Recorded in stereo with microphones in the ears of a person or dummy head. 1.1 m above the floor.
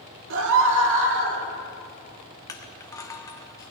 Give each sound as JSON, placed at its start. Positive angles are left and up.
{"t": 0.3, "sound": "a scream", "side_deg": -65, "distance_m": 2.0}
{"t": 2.5, "sound": "crushing", "side_deg": 15, "distance_m": 1.1}